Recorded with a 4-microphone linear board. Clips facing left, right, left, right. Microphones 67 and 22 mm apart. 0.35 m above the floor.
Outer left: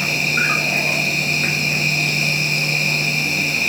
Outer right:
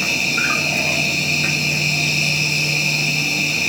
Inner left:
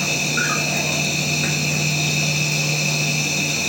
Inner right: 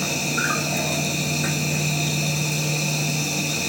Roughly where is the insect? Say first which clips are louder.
Outer left 1 dB, inner left 3 dB; left.